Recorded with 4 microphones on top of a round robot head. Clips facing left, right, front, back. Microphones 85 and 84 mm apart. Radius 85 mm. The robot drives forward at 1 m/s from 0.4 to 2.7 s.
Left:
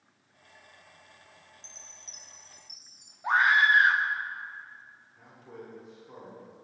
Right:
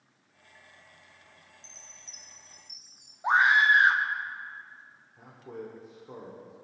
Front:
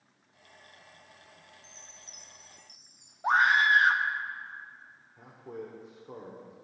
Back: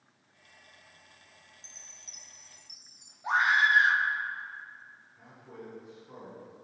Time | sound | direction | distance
1.6 | a chime | 170° right | 1.2 m
3.2 | a scream | 25° right | 1.1 m
5.2 | a man speaking | 25° right | 1.8 m